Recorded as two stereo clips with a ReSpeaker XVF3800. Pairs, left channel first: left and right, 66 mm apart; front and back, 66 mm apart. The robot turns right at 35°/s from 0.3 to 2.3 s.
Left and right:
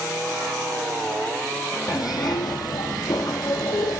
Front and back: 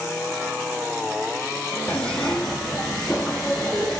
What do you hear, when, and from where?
1.9 s a zipper: 70° left, 0.7 m; by 4.0 s 85° left, 0.7 m